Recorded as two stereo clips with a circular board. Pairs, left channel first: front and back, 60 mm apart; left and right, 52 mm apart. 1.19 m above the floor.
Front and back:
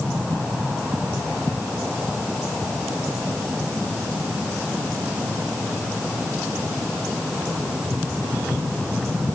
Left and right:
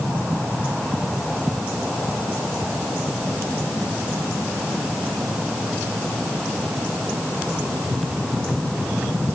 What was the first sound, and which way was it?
Only background noise.